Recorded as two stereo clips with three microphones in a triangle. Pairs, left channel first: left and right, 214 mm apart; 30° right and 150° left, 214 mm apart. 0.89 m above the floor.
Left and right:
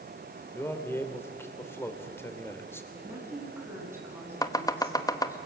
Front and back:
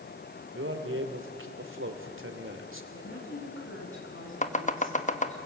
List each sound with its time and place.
0.5 s a man speaking: 170° left, 3 m
2.9 s a woman speaking: 10° right, 8 m
4.4 s chopping: 20° left, 1.2 m